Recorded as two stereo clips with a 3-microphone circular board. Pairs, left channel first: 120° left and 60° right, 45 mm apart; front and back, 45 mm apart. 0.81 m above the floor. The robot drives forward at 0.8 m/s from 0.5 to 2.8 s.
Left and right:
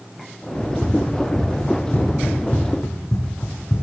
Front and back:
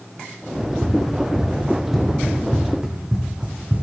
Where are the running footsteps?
70° left, 7 m; by 3.8 s 125° left, 2 m.